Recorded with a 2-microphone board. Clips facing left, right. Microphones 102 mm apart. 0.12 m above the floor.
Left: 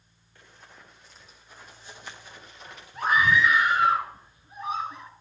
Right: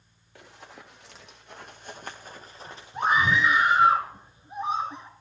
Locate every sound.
0.3 s running footsteps: 85° right, 3 m; by 3.9 s 10° right (ahead or behind), 3.5 m
2.9 s a scream: 25° right (ahead or behind), 2 m